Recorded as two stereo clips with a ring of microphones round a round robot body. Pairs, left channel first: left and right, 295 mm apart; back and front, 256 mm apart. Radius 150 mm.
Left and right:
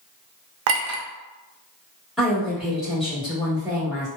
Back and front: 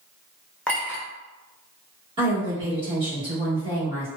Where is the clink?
95° right, 0.6 m.